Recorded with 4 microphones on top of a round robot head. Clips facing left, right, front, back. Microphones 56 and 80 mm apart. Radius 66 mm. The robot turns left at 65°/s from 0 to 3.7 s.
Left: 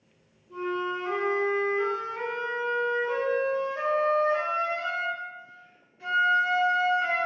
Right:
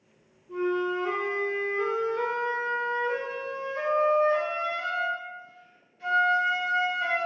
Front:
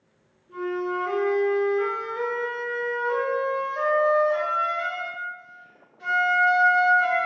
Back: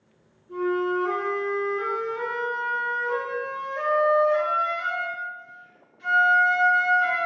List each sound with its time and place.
0.5 s a flute: 110° right, 1.6 m; by 7.2 s 40° left, 1.6 m